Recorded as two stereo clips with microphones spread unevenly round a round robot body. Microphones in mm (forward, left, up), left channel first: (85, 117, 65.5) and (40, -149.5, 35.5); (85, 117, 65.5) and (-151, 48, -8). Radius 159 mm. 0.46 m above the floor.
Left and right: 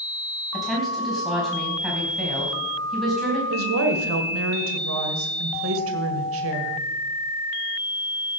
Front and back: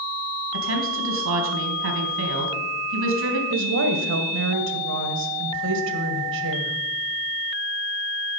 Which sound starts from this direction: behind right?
A woman speaking, at 3.5 s.